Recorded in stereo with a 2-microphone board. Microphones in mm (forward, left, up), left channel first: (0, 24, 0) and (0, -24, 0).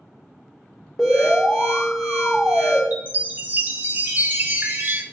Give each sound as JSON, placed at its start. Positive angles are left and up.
{"t": 1.0, "sound": "an alarm", "side_deg": 0, "distance_m": 1.4}
{"t": 2.9, "sound": "a chime", "side_deg": -40, "distance_m": 0.7}